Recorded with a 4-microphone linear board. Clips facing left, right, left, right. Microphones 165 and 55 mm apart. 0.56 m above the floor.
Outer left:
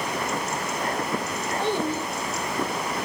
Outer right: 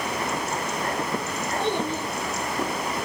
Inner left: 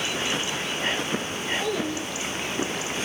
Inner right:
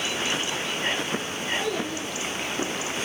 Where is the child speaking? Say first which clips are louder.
Outer left 1 dB, inner left 1 dB; 55° right (ahead or behind), 6.5 m.